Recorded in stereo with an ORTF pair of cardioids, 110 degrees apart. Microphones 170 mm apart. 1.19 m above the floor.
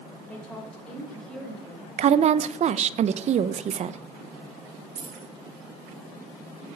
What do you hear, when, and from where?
0.3 s a woman speaking: 10° left, 4 m; by 1.9 s straight ahead, 5.5 m
2.0 s a woman speaking: 45° right, 0.8 m
5.0 s keys jangling: 50° right, 3 m